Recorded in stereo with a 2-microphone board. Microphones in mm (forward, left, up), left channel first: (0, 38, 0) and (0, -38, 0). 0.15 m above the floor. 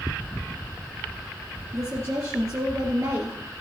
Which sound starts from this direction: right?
A woman speaking, at 1.7 s.